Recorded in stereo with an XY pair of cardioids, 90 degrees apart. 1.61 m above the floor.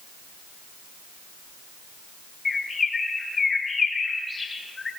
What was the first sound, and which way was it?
A bird, 35° left.